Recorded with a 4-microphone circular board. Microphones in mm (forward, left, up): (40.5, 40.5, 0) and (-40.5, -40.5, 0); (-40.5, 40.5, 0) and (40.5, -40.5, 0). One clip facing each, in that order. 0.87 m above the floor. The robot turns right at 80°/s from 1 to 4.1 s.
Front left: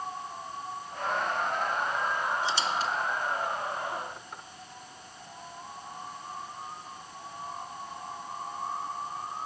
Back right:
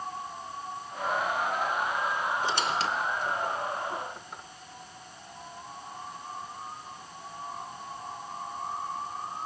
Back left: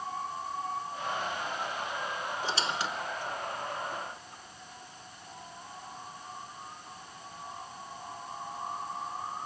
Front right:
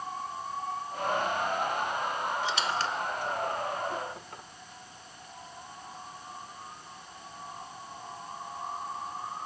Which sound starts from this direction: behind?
A squeak, at 2.4 s.